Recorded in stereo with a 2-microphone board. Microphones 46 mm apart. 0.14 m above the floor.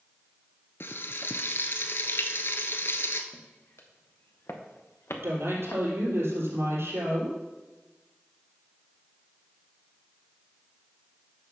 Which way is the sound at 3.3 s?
65° left (ahead or behind).